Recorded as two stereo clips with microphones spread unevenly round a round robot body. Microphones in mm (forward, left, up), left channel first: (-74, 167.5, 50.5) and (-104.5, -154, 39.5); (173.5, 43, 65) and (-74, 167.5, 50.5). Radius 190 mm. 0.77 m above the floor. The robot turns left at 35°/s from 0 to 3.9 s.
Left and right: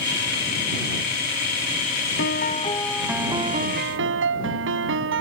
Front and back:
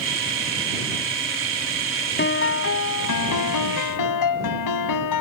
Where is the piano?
25° left; by 5.2 s 35° right.